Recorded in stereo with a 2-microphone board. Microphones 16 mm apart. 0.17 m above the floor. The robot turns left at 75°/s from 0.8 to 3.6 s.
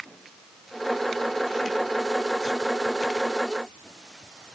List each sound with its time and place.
Only background noise.